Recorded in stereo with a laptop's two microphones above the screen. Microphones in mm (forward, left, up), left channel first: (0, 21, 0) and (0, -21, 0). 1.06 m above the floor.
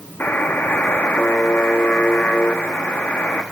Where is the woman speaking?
No woman speaking in this recording.